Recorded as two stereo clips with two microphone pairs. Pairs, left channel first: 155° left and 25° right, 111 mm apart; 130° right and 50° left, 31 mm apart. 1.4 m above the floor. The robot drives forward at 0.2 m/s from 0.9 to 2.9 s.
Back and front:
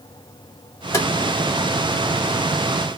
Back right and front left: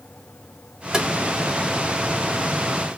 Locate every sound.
0.9 s tapping: 110° left, 1.4 m; by 1.1 s 115° left, 1.4 m